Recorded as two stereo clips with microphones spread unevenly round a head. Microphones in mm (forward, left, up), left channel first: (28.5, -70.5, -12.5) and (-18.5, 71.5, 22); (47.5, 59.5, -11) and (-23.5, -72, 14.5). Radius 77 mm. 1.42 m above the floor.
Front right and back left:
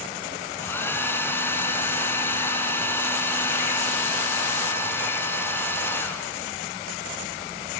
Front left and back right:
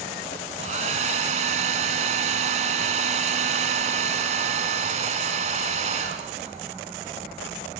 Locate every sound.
0.6 s a hair dryer: 150° right, 3 m